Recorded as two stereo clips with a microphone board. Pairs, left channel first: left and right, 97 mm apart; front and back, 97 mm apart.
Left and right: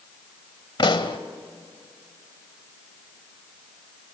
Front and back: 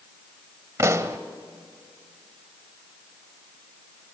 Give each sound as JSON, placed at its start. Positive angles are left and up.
{"t": 0.8, "sound": "a pop", "azimuth_deg": 120, "distance_m": 1.2}